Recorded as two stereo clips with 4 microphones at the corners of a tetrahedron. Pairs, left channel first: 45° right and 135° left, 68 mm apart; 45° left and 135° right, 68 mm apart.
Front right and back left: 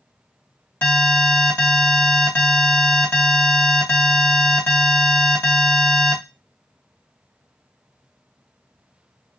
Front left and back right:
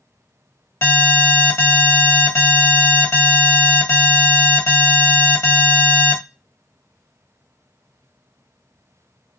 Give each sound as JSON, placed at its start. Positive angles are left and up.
{"t": 0.8, "sound": "an alarm", "azimuth_deg": 5, "distance_m": 1.5}